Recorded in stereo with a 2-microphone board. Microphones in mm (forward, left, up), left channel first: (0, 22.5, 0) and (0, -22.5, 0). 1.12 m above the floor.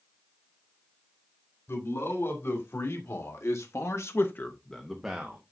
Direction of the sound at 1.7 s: 70° left (ahead or behind).